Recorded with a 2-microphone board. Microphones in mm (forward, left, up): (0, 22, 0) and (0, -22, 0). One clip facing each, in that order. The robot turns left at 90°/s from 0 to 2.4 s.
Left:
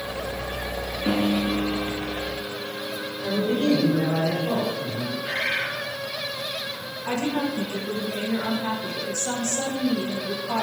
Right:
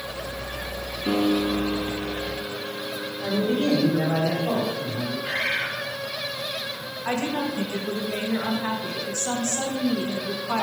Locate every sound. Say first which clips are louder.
1.1 s a piano: right 1 dB; 150° left, 1.5 m; by 4.2 s 25° left, 1.5 m
3.2 s a man speaking: even; 80° right, 4.5 m
5.2 s a bird: even; 70° right (ahead or behind), 4 m
7.0 s a woman speaking: left 1 dB; 50° right (ahead or behind), 1.8 m